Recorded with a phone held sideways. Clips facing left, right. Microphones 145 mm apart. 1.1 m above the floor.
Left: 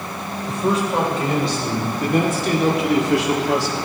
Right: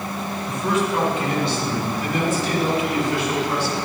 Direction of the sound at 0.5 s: 30° left (ahead or behind).